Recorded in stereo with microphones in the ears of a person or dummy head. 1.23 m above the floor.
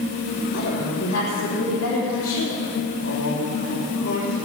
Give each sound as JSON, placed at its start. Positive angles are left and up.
{"t": 0.5, "sound": "a woman speaking", "side_deg": 75, "distance_m": 3.5}
{"t": 3.0, "sound": "a man speaking", "side_deg": 65, "distance_m": 5.5}